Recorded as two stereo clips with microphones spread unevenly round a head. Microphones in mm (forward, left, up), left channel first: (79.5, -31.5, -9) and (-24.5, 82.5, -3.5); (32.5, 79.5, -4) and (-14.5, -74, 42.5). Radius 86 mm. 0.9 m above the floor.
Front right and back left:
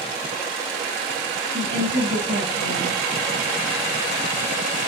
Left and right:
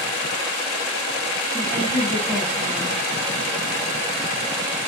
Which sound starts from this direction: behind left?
A woman speaking, at 1.5 s.